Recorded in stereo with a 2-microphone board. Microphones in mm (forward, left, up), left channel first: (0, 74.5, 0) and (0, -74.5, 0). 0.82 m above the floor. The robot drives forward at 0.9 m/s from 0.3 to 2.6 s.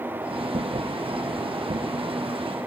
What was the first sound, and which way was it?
Only background noise.